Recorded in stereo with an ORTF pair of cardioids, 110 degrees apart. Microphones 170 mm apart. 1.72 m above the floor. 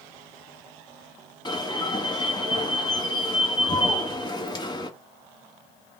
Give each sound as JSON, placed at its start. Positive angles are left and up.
{"t": 1.4, "sound": "an alarm", "azimuth_deg": 25, "distance_m": 1.4}